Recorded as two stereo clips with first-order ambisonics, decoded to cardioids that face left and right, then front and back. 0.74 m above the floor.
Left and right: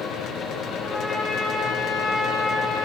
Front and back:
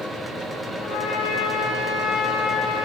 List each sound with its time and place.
0.8 s a trumpet: 5° left, 6.5 m